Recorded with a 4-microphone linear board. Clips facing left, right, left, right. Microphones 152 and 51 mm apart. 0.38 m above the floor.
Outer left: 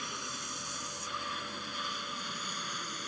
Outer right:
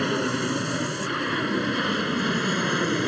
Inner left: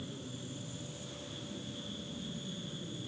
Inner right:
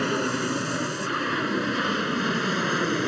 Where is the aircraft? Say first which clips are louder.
Outer right 20 dB, inner right 20 dB; 70° right (ahead or behind); by 3.1 s 75° right (ahead or behind).